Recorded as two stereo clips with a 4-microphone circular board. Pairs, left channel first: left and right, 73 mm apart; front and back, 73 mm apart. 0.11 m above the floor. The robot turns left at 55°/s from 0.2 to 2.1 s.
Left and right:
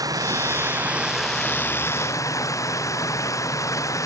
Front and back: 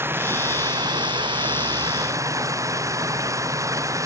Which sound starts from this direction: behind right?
Running water, at 0.0 s.